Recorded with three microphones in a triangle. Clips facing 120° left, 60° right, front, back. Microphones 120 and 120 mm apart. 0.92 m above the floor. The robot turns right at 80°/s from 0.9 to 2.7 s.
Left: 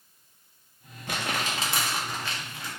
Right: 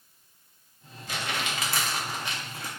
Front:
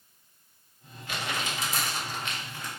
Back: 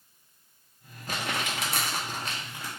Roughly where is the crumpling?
Behind left.